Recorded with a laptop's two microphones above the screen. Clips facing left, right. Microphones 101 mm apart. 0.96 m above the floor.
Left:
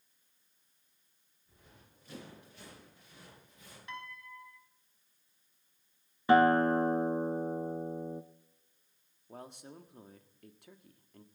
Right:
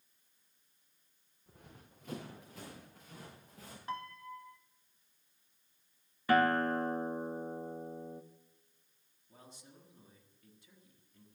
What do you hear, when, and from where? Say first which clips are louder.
1.5 s running footsteps: right 4 dB; 75° right (ahead or behind), 6.5 m; by 3.8 s 70° right (ahead or behind), 5 m
3.9 s a piano: right 4 dB; 35° right (ahead or behind), 1.0 m
6.3 s a guitar: left 5 dB; 25° left (ahead or behind), 1.0 m
9.3 s a man speaking: left 9 dB; 60° left (ahead or behind), 1.5 m